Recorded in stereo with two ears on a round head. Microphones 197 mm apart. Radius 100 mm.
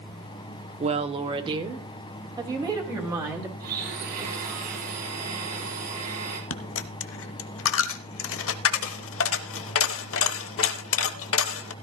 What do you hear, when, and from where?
0.8 s a woman speaking: 30° right (ahead or behind), 0.9 m; by 3.5 s 15° right (ahead or behind), 3.5 m
3.6 s a blender: 45° right (ahead or behind), 5 m
6.5 s a dropped coin: 70° left (ahead or behind), 0.9 m